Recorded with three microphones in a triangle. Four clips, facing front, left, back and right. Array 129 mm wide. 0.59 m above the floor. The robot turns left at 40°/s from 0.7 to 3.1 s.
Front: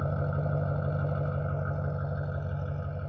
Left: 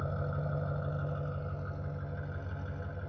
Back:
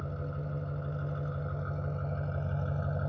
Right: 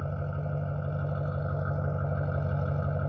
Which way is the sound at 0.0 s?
15° right.